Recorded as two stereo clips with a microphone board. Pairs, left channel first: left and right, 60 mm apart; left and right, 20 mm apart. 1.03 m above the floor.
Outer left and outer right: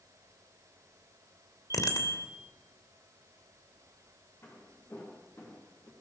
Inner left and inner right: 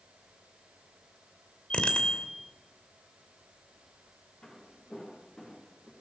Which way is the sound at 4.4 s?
45° left (ahead or behind).